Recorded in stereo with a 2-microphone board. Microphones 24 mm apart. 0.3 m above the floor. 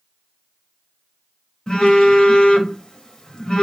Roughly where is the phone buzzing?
Left.